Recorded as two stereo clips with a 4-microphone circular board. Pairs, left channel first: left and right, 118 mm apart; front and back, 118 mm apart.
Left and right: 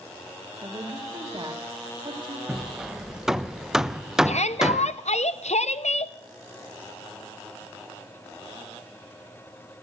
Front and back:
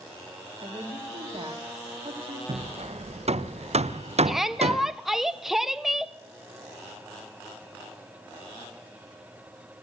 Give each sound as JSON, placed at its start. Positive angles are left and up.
{"t": 0.6, "sound": "a woman speaking", "azimuth_deg": -140, "distance_m": 1.7}
{"t": 2.5, "sound": "hammering", "azimuth_deg": -175, "distance_m": 0.6}
{"t": 4.2, "sound": "a shout", "azimuth_deg": 95, "distance_m": 0.9}